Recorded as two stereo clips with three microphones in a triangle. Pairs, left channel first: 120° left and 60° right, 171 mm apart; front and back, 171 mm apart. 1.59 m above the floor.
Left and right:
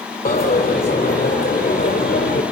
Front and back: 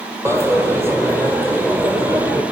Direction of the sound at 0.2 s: 105° left.